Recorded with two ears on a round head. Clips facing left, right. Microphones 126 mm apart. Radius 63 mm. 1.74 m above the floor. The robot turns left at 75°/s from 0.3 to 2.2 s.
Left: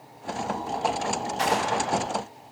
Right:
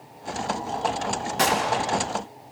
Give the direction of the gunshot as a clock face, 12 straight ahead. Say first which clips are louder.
Right 2 dB; 4 o'clock.